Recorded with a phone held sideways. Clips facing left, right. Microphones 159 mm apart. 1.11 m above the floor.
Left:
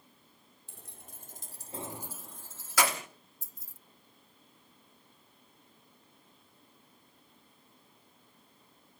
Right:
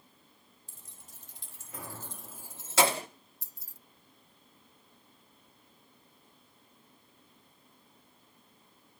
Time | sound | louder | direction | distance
0.7 | keys jangling | left 6 dB | 65° left (ahead or behind) | 1.9 m
3.4 | keys jangling | even | 70° right (ahead or behind) | 0.6 m